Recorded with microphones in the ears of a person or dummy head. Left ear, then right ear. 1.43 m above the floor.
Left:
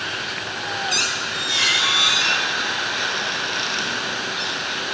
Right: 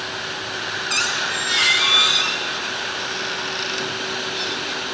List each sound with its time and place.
0.9 s a squeak: 50° right (ahead or behind), 1.2 m